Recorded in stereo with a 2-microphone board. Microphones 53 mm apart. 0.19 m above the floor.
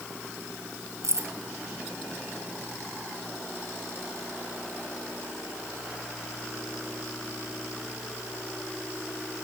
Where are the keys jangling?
70° right (ahead or behind), 2.5 m.